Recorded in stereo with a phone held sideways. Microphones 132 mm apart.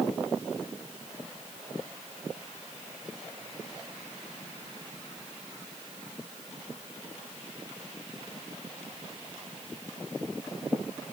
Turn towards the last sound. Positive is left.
No sound to turn to.